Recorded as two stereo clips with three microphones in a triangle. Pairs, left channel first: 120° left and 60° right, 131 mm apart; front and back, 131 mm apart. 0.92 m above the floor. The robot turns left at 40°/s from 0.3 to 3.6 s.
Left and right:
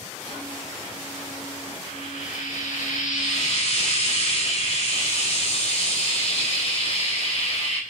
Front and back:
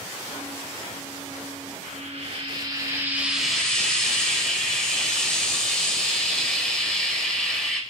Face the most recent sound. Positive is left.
turn(degrees=85)